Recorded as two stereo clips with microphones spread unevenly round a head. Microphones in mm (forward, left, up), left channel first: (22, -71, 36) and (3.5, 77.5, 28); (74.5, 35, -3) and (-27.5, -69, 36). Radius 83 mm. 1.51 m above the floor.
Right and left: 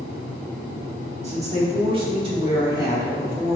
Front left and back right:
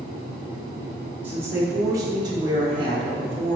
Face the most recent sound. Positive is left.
turn(degrees=170)